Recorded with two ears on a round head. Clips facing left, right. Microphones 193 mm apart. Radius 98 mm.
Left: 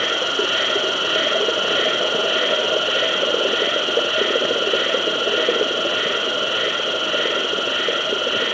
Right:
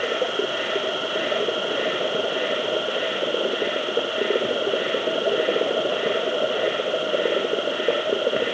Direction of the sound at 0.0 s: 85° left.